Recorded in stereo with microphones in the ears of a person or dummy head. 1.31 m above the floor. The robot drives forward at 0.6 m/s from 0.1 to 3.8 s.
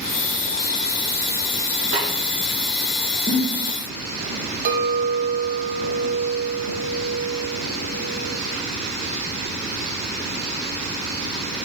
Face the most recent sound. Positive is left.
turn(degrees=-40)  # may be behind; listen again after turning